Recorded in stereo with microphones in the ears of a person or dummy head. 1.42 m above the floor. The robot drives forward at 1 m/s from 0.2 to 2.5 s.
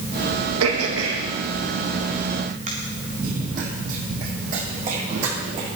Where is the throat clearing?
80° right, 1.6 m; by 2.7 s 45° right (ahead or behind), 2.5 m.